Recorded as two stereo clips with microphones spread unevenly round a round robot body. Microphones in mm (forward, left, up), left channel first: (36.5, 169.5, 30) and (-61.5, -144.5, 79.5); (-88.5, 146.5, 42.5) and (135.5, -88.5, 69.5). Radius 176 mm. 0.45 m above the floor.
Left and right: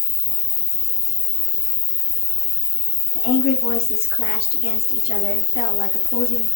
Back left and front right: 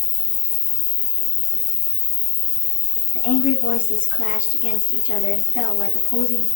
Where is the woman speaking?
95° left, 1.5 m.